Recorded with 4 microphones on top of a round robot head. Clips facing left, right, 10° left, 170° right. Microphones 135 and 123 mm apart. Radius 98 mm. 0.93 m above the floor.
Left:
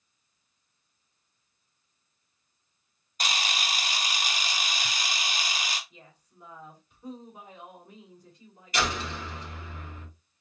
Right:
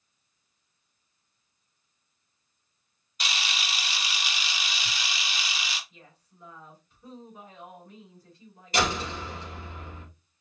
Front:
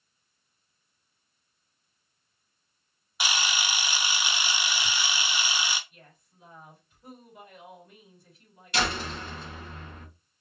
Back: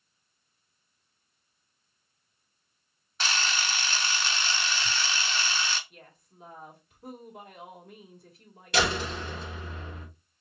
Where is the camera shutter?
85° left, 0.8 m.